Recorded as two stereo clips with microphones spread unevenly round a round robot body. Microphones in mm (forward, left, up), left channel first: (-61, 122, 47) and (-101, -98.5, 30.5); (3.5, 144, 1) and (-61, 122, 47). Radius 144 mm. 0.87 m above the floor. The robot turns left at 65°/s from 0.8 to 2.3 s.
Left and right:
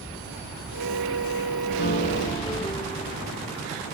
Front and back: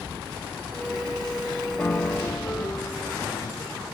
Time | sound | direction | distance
1.8 | a piano | 40° left | 1.2 m